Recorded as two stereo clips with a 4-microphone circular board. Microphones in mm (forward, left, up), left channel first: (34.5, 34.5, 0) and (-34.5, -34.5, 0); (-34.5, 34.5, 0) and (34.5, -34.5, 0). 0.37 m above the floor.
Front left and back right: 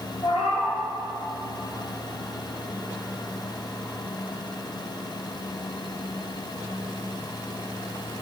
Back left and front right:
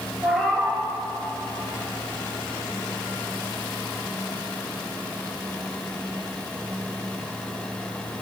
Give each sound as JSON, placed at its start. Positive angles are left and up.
{"t": 0.2, "sound": "a cat meowing", "azimuth_deg": 50, "distance_m": 2.0}